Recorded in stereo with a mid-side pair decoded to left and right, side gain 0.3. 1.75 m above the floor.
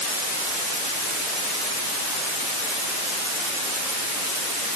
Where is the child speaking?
I don't hear a child speaking.